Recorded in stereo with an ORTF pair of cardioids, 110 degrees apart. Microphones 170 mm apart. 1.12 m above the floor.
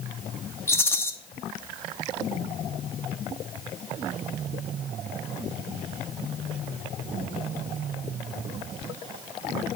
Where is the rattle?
15° left, 0.7 m.